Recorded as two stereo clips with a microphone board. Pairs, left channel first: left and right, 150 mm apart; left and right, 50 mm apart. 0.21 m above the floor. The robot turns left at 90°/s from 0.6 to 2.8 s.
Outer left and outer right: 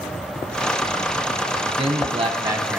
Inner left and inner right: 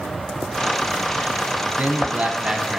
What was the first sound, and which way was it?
A man speaking, 60° right.